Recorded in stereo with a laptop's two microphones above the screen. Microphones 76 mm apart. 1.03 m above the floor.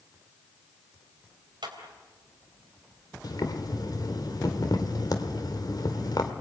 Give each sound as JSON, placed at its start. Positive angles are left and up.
{"t": 1.6, "sound": "a clap", "side_deg": -85, "distance_m": 4.0}
{"t": 3.2, "sound": "boiling", "side_deg": 60, "distance_m": 2.0}